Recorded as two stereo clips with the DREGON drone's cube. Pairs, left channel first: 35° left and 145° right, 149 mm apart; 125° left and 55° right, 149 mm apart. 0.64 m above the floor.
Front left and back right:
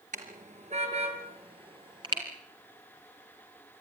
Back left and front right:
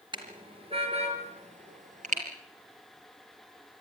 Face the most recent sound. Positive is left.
turn(degrees=-85)